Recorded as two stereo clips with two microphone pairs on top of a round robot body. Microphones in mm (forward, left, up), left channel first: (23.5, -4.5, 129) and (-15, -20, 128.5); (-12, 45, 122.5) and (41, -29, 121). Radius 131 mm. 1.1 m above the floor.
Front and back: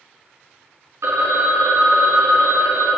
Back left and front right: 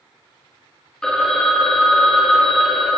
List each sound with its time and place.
1.0 s a phone ringing: 150° right, 0.9 m